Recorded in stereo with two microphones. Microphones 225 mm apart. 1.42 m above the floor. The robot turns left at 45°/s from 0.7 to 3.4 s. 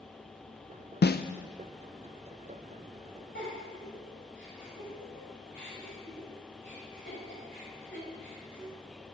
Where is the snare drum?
50° left (ahead or behind), 0.5 m; by 1.2 s 40° left (ahead or behind), 0.5 m.